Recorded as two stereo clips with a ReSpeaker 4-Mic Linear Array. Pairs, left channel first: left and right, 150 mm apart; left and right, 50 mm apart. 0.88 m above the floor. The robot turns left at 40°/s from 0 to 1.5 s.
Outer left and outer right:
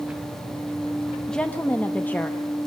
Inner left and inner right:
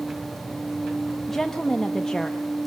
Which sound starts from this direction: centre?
A woman speaking, at 1.3 s.